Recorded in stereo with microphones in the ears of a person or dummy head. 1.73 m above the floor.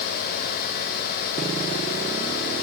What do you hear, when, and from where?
Only background noise.